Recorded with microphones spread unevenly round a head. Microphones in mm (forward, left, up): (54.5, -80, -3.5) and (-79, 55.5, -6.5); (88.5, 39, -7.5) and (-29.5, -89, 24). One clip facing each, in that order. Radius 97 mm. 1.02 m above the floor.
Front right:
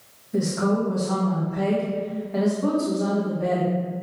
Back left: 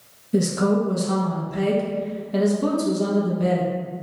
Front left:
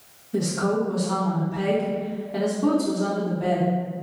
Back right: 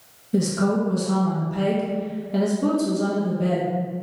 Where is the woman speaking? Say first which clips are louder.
Back left 3 dB, back right 2 dB; 175° left, 1.0 m.